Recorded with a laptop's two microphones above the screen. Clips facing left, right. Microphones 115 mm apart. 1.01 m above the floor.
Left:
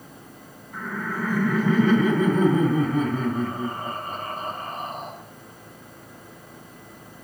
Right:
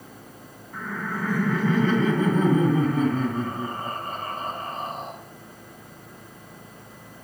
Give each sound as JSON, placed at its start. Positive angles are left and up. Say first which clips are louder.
{"t": 0.7, "sound": "laughter", "louder": "left 1 dB", "side_deg": 10, "distance_m": 3.0}